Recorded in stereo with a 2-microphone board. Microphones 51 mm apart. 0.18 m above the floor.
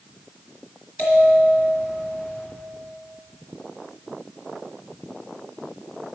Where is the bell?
45° left (ahead or behind), 2 m.